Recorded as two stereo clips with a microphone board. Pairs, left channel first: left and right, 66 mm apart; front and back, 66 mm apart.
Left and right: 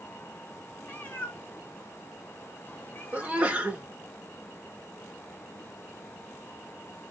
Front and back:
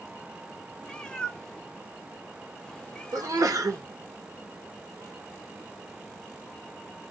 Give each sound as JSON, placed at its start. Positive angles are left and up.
{"t": 0.8, "sound": "a cat meowing", "azimuth_deg": 60, "distance_m": 0.6}
{"t": 3.1, "sound": "a sneeze", "azimuth_deg": -155, "distance_m": 1.0}